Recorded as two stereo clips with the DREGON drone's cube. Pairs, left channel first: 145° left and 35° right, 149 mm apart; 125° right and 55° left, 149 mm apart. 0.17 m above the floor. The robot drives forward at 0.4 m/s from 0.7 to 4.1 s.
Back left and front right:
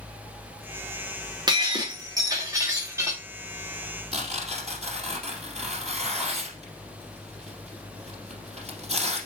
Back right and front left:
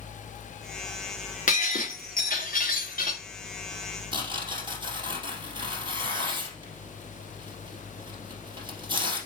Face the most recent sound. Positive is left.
turn(degrees=5)